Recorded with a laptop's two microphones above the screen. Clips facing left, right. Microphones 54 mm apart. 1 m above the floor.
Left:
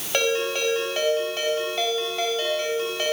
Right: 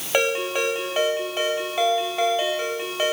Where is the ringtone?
20° right (ahead or behind), 3.5 m.